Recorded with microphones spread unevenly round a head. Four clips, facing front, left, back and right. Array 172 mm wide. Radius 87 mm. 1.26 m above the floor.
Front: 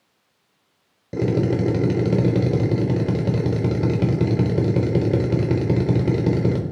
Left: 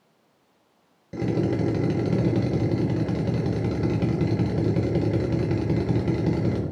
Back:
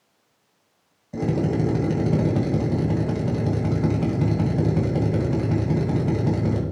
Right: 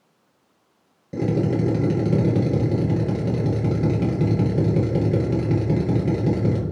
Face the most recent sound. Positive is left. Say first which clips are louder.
# right 2 dB, front 3 dB
turn(degrees=-5)